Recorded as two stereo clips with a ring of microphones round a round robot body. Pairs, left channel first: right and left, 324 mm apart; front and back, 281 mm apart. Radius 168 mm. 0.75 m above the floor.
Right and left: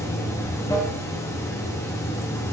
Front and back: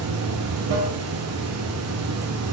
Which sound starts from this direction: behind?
Running water, at 0.0 s.